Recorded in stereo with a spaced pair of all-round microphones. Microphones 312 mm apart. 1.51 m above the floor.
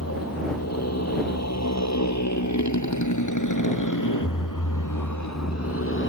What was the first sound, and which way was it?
A motorcycle, 50° left (ahead or behind).